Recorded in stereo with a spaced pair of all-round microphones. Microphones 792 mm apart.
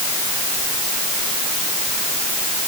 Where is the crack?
I don't hear a crack.